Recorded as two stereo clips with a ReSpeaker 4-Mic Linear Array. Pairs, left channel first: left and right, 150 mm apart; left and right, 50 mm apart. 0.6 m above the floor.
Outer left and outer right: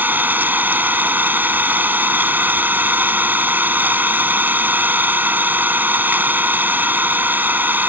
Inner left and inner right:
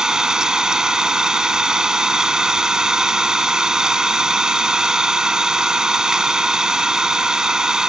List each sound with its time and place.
0.0 s an engine running: 10° right (ahead or behind)